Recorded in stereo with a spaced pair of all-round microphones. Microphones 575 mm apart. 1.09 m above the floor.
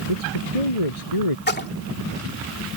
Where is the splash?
15° left (ahead or behind).